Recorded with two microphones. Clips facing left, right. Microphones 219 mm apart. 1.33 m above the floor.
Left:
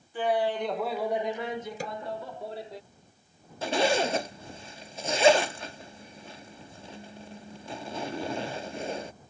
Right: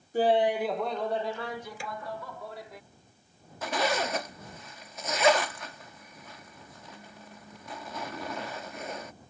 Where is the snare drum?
40° left (ahead or behind).